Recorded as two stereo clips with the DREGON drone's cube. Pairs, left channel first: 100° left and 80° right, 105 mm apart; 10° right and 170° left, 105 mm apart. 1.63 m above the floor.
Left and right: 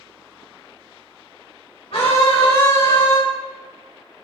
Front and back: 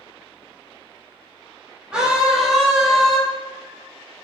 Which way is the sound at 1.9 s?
90° left.